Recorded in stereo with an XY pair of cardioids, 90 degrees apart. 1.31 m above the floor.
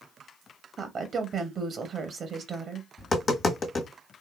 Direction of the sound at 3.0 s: 45° left.